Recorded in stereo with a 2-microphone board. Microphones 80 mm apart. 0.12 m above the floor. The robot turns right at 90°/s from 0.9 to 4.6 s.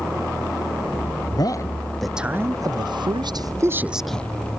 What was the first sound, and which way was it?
A man speaking, 110° left.